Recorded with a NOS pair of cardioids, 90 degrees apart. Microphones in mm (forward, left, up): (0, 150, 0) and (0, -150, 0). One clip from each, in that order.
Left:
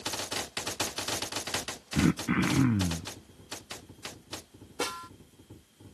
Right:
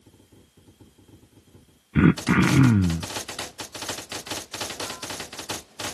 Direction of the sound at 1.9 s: 40° right.